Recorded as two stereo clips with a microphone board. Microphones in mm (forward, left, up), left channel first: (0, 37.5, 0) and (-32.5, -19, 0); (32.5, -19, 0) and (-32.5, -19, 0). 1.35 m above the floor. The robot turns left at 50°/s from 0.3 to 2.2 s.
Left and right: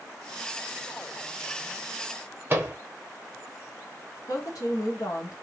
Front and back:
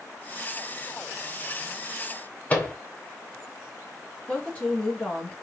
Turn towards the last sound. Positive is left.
turn(degrees=65)